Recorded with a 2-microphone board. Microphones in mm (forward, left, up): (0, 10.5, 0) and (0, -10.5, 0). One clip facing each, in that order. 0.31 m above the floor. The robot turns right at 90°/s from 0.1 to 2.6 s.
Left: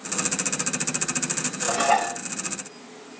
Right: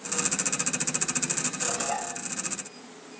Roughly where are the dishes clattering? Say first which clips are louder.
Left 14 dB; ahead left.